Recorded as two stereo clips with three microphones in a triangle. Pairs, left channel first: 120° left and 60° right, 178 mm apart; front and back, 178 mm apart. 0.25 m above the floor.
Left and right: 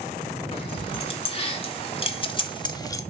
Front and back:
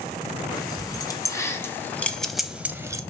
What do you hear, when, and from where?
0.5 s keys jangling: 65° left, 1.6 m; by 3.0 s 150° left, 0.7 m